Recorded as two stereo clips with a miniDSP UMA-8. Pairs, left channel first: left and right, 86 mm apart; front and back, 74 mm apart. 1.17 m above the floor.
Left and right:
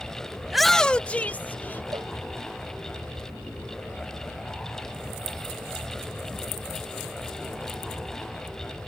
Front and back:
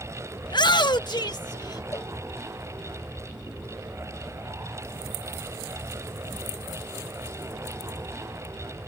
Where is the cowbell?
45° right.